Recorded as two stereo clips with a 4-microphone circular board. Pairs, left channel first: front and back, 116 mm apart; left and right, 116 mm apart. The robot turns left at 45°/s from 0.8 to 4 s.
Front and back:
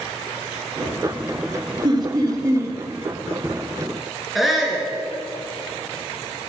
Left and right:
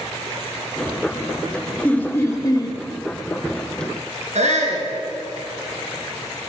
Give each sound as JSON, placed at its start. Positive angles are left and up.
{"t": 1.8, "sound": "laughter", "azimuth_deg": 165, "distance_m": 1.7}
{"t": 4.3, "sound": "a shout", "azimuth_deg": -90, "distance_m": 4.0}